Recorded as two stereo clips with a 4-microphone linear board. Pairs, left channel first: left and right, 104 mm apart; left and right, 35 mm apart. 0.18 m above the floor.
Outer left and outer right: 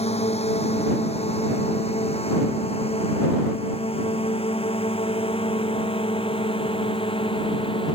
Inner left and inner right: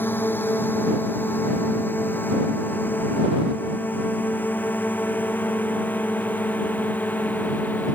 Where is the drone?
80° left; by 8.0 s 55° left (ahead or behind).